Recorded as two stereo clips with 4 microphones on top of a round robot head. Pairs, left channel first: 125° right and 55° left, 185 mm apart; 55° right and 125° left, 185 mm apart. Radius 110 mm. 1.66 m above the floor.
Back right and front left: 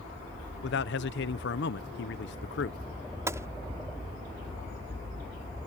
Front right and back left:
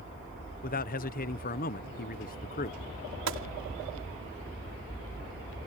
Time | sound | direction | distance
0.6 | a man speaking | 95° right | ?
3.3 | a gunshot | 130° left | ?